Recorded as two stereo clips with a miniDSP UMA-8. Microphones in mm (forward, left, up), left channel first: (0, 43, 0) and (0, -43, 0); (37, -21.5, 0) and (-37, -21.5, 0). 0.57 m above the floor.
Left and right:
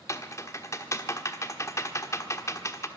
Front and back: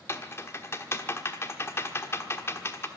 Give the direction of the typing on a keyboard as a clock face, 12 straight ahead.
11 o'clock.